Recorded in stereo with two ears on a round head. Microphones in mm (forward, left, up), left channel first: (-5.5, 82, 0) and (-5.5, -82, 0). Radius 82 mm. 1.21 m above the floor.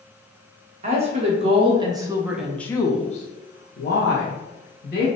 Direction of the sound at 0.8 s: 40° right (ahead or behind).